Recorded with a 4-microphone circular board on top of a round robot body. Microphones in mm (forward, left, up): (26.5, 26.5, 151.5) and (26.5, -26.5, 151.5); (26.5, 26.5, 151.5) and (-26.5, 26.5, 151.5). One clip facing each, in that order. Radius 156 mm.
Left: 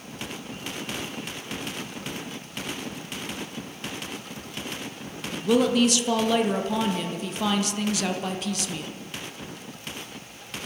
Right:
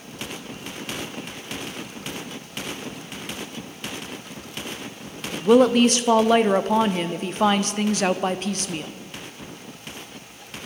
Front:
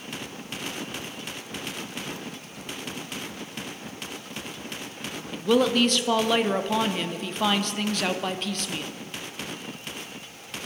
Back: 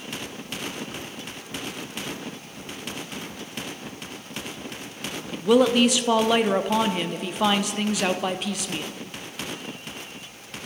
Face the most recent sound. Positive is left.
turn(degrees=-100)